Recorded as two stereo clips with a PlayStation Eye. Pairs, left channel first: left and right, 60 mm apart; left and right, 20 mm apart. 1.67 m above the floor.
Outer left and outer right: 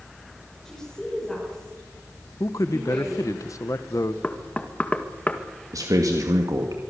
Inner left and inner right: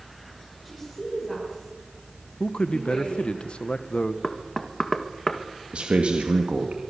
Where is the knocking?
25° left (ahead or behind), 1.9 m.